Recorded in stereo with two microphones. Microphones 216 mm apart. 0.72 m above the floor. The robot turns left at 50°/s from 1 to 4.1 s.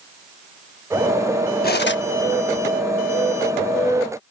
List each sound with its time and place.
1.6 s cutlery clinking: 45° left (ahead or behind); by 2.0 s 60° left (ahead or behind)